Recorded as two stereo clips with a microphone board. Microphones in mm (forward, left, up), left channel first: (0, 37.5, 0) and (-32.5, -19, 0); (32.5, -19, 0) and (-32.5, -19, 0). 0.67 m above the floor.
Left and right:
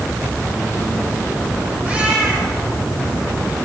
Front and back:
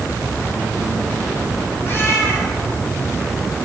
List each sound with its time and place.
1.8 s a cat meowing: 55° right, 9 m